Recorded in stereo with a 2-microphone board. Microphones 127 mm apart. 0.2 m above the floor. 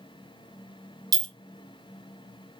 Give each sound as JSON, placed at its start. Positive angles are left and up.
{"t": 1.1, "sound": "a clink", "side_deg": -30, "distance_m": 0.6}